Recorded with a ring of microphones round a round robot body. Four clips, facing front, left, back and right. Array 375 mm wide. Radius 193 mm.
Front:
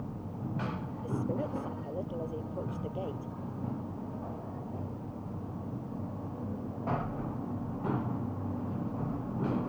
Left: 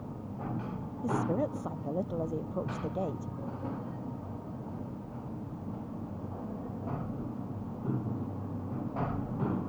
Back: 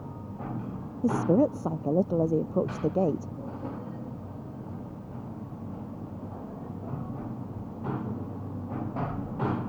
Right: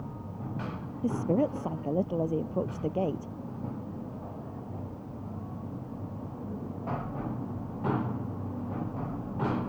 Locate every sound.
1.0 s a woman speaking: 160° right